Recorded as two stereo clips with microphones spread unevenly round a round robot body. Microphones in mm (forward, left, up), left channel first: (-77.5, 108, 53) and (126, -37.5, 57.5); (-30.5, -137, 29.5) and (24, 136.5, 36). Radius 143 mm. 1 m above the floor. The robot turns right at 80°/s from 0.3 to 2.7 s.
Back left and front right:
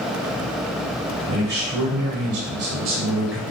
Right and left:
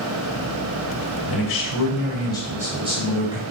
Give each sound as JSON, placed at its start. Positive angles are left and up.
{"t": 1.3, "sound": "a man speaking", "azimuth_deg": -110, "distance_m": 4.0}